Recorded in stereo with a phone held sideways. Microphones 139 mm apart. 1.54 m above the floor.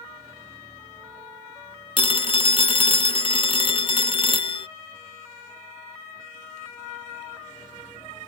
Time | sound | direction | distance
2.0 | a phone ringing | 40° left (ahead or behind) | ?